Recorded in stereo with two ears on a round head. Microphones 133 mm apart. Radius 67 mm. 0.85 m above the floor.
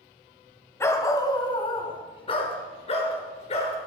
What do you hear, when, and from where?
0.8 s a dog barking: 20° left (ahead or behind), 1.3 m; by 3.8 s 45° left (ahead or behind), 3.5 m